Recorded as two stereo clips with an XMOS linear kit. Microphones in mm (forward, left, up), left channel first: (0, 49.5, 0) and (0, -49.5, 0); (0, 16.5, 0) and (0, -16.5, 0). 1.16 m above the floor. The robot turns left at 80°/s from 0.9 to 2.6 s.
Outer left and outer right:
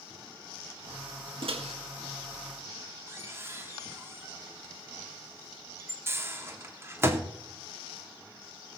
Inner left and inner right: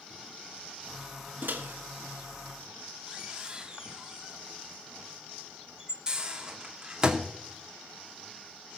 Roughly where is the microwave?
Right.